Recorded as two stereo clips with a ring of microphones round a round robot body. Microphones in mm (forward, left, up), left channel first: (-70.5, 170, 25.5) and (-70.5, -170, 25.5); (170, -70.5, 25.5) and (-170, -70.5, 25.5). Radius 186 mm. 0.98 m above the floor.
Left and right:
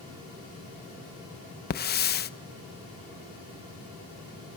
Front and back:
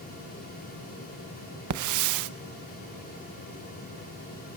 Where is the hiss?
150° left, 0.8 m.